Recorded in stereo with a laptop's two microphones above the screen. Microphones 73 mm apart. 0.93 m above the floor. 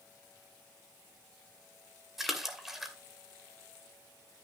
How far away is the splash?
About 2.5 m.